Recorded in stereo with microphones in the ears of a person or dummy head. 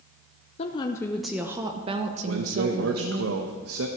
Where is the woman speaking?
30° left (ahead or behind), 0.7 m; by 3.2 s 55° right (ahead or behind), 1.3 m.